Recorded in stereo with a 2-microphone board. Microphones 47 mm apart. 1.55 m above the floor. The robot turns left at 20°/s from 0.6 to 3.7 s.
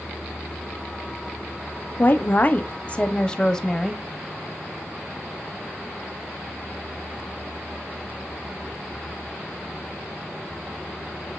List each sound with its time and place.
2.0 s a woman speaking: 40° left, 0.6 m; by 4.0 s 10° left, 0.6 m